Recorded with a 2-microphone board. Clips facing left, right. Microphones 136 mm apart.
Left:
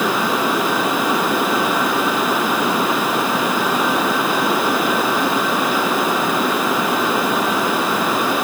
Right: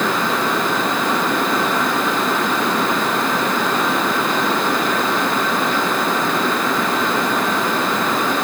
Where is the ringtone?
No ringtone in this recording.